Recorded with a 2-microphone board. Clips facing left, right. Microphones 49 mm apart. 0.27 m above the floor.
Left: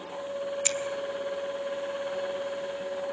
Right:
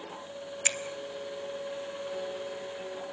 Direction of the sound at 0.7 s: 30° right (ahead or behind).